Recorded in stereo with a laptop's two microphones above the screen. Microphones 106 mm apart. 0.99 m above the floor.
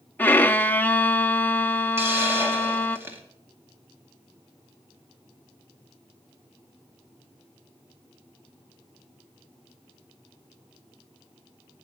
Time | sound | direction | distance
0.2 | a violin | 15° left (ahead or behind) | 0.6 m
2.0 | a hiss | 25° right (ahead or behind) | 2.5 m